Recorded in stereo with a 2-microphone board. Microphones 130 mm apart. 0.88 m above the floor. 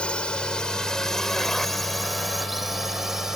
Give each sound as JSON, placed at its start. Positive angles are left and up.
{"t": 0.0, "sound": "a drone", "side_deg": 5}